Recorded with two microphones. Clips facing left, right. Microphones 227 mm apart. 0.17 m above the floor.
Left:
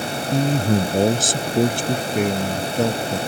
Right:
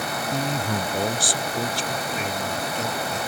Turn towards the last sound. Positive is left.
turn(degrees=65)  # may be behind; listen again after turning